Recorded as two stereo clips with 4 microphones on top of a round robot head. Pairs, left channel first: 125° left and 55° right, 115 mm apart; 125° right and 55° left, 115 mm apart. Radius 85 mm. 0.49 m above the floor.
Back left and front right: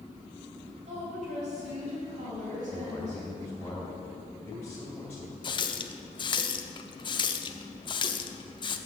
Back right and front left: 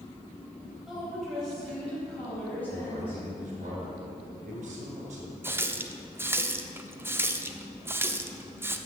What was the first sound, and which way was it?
A woman speaking, 30° right.